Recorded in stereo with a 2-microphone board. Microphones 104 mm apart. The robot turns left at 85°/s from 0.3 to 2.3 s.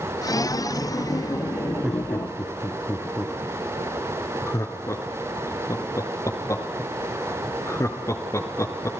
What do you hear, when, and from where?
1.8 s laughter: 10° right (ahead or behind), 2.5 m; by 8.9 s 30° left (ahead or behind), 2.5 m